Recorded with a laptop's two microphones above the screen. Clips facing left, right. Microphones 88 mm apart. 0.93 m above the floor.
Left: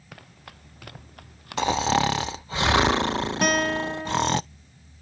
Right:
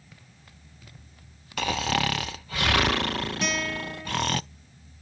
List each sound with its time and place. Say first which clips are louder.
0.1 s running footsteps: left 12 dB; 80° left
1.6 s snoring: left 5 dB; 25° left (ahead or behind)
3.4 s a guitar: left 7 dB; 55° left (ahead or behind)